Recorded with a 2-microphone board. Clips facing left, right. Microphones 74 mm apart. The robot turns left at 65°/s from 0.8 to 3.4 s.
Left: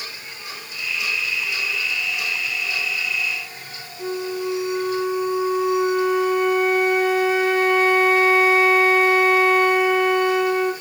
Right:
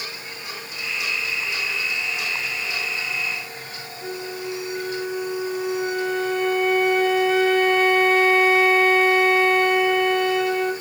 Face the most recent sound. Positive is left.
turn(degrees=15)  # may be behind; listen again after turning